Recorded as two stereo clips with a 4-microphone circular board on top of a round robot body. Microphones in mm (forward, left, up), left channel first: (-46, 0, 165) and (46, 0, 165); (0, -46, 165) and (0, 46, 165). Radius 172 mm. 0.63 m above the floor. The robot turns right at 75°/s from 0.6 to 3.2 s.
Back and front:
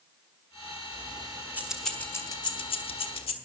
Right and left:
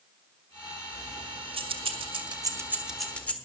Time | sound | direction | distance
0.9 | keys jangling | 25° left | 1.5 m